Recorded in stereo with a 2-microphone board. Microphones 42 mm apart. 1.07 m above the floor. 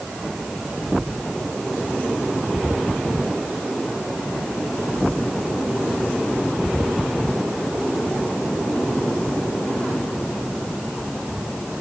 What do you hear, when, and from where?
Only background noise.